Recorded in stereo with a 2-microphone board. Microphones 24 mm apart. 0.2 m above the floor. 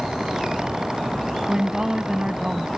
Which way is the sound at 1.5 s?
25° right (ahead or behind).